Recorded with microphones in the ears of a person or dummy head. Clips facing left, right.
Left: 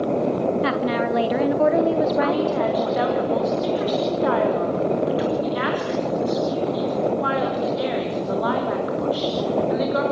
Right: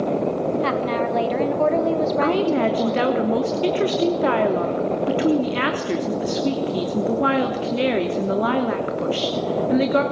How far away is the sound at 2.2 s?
About 3 m.